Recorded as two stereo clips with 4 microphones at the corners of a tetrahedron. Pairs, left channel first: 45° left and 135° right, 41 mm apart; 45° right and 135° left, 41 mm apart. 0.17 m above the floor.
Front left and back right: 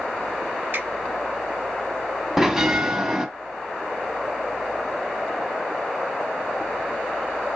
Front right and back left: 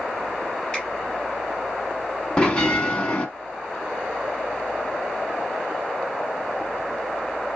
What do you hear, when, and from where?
0.7 s a finger snap: 115° right, 3.5 m
2.4 s a bell: 70° right, 1.0 m